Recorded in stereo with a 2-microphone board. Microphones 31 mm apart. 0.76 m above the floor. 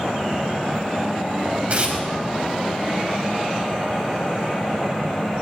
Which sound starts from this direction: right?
Tearing paper, at 1.7 s.